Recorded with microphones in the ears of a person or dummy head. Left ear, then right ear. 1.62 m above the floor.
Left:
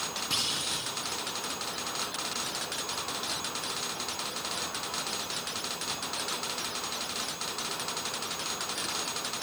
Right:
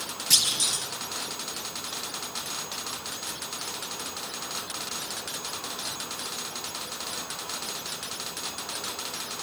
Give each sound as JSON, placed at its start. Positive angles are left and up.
{"t": 0.3, "sound": "a clunk", "side_deg": -50, "distance_m": 1.6}